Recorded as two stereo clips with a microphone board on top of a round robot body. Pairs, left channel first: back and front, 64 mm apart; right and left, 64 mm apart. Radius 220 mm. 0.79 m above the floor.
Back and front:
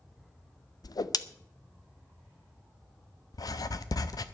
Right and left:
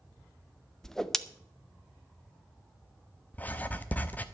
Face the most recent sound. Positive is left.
turn(degrees=-155)